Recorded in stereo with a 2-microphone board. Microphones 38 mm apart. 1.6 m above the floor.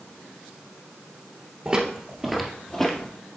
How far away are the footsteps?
About 1.8 m.